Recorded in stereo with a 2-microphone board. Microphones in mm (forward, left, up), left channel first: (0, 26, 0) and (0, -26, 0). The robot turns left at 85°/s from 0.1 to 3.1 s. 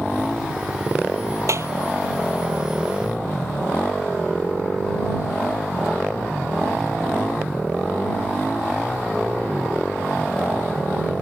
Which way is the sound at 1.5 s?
65° right (ahead or behind).